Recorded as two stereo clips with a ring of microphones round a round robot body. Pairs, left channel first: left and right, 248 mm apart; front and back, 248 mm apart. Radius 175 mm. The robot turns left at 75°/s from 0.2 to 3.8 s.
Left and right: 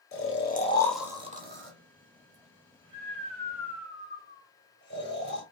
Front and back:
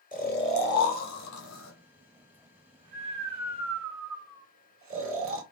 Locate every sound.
0.1 s snoring: 55° left, 1.5 m; by 5.4 s 145° left, 1.5 m